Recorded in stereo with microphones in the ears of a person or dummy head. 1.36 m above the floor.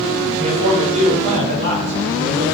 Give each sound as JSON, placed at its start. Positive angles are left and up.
{"t": 0.4, "sound": "a man speaking", "side_deg": -35, "distance_m": 5.5}